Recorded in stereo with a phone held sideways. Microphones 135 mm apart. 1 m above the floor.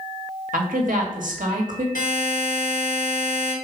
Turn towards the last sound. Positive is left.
turn(degrees=65)  # may be behind; listen again after turning